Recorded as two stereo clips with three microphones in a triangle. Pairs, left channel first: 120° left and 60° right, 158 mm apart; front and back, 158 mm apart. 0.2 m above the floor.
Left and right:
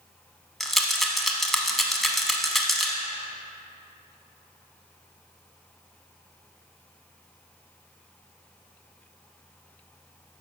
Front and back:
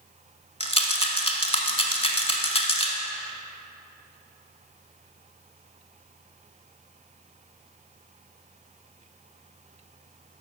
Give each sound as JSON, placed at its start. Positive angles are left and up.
{"t": 0.6, "sound": "a rattle", "azimuth_deg": 30, "distance_m": 0.8}